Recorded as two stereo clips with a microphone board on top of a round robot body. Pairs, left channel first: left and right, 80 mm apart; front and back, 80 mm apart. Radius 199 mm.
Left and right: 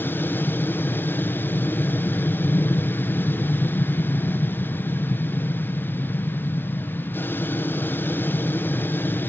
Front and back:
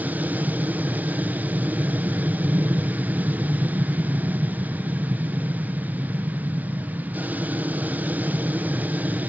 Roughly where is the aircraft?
Behind left.